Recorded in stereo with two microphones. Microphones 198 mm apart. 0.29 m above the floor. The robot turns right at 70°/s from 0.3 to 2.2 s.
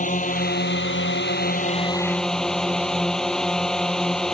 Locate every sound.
0.0 s a drone: 45° left; by 4.3 s 175° left